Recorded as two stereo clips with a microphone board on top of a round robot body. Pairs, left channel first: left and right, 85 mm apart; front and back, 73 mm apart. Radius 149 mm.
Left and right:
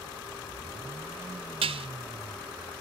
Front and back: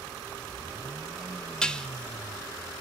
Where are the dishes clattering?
80° right, 0.9 m.